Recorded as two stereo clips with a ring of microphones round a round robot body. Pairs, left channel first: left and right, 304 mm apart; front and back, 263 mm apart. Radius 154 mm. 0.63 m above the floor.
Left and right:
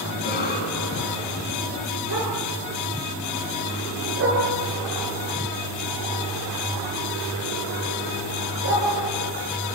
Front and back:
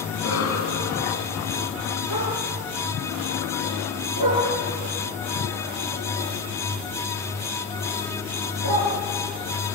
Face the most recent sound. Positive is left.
turn(degrees=-140)